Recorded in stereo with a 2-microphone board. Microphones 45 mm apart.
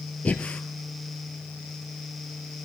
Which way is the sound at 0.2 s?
35° left (ahead or behind).